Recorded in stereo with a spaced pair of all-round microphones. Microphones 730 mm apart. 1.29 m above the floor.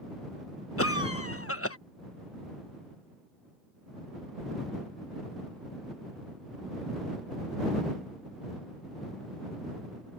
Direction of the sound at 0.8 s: 20° left (ahead or behind).